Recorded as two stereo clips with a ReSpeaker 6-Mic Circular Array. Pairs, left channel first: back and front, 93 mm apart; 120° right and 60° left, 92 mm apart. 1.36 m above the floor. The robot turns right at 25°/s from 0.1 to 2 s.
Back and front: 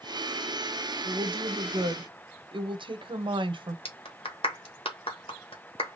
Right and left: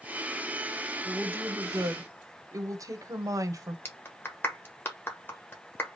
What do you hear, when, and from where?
1.1 s a woman speaking: 10° right, 0.8 m; by 3.8 s 10° left, 0.8 m
3.9 s a clap: 175° left, 1.2 m